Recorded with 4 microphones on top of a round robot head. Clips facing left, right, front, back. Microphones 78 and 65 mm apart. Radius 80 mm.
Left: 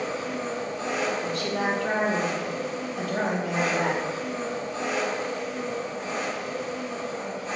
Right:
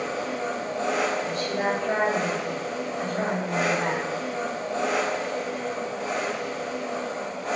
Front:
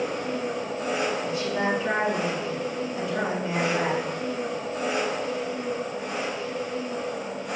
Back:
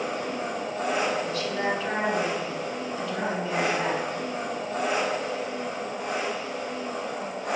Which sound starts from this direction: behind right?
An engine running, at 0.0 s.